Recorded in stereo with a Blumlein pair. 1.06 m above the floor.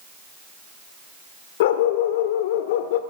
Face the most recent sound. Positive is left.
turn(degrees=55)